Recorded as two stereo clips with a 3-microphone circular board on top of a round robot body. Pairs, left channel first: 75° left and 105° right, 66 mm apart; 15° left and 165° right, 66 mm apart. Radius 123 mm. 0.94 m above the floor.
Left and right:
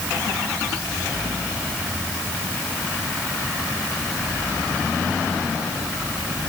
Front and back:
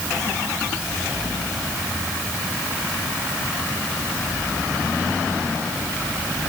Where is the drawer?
I don't hear a drawer.